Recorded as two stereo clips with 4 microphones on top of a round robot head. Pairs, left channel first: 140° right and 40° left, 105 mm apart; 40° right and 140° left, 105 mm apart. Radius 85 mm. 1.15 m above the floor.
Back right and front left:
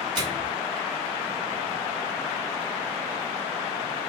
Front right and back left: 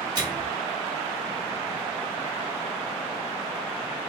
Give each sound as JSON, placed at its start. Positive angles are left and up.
{"t": 0.1, "sound": "a microwave", "azimuth_deg": 85, "distance_m": 1.5}